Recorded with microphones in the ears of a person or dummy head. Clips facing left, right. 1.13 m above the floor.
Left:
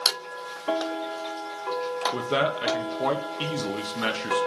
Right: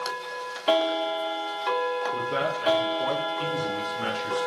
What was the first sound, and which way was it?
A man speaking, 60° left (ahead or behind).